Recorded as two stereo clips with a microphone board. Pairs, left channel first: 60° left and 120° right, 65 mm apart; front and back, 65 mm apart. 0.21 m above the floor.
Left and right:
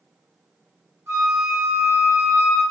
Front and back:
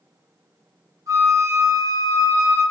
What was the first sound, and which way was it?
A flute, 165° right.